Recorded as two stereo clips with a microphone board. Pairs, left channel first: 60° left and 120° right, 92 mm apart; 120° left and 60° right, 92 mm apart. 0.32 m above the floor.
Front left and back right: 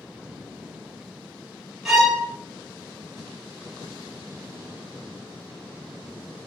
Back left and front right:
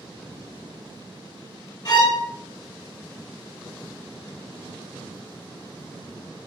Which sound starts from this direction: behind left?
A violin, at 1.9 s.